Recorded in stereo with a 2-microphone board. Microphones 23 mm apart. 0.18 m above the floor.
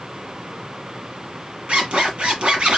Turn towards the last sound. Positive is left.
turn(degrees=-60)  # may be behind; listen again after turning